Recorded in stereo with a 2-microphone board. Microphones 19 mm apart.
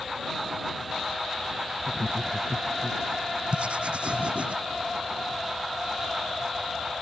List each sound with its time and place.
1.8 s laughter: 70° right (ahead or behind)
3.5 s writing: 65° right (ahead or behind)